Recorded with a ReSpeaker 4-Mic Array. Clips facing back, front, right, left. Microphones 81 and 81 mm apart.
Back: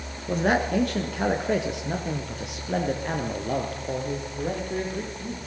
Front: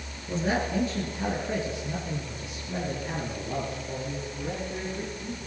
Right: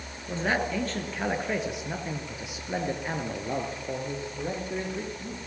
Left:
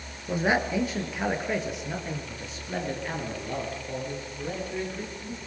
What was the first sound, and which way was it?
A man speaking, 160° left.